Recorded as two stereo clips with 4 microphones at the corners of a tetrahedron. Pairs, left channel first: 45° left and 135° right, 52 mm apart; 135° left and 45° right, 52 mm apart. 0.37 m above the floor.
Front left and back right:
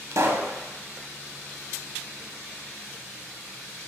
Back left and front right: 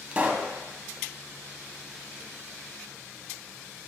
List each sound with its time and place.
0.1 s a pop: 110° right, 0.5 m